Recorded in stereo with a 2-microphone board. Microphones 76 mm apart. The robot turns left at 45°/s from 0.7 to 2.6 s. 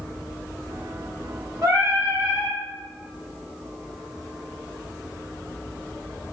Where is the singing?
130° right, 1.7 m; by 2.6 s 170° right, 1.7 m.